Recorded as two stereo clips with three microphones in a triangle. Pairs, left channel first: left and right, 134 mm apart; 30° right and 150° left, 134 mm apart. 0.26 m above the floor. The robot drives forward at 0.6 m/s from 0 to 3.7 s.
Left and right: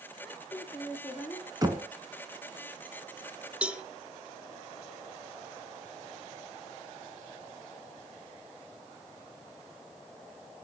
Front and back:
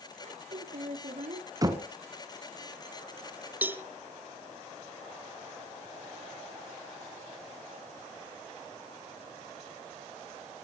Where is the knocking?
150° right, 1.7 m.